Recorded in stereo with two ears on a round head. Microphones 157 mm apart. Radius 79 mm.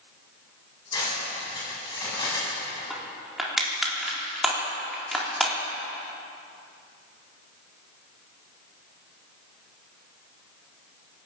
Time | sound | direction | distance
0.9 | cutlery clinking | 25° left (ahead or behind) | 8.5 m
2.9 | crushing | centre (ahead or behind) | 4 m